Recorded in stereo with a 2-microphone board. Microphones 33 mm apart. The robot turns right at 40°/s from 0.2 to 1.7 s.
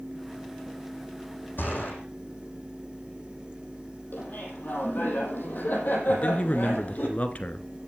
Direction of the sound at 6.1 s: 45° left (ahead or behind).